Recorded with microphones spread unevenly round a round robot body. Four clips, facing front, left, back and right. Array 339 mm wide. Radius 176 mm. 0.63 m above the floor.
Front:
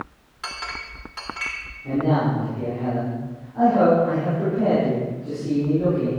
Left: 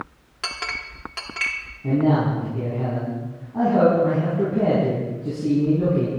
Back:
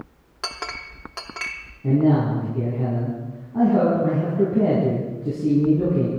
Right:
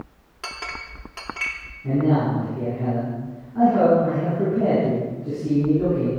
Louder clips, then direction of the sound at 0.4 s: Left 2 dB, even; straight behind.